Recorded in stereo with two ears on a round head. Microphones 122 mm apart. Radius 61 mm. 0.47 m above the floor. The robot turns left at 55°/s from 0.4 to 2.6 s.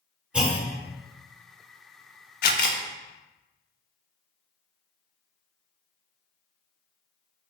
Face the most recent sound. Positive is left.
turn(degrees=70)  # may be behind; listen again after turning